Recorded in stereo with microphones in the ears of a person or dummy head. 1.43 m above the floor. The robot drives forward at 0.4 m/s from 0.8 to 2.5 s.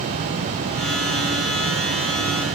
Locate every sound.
Only background noise.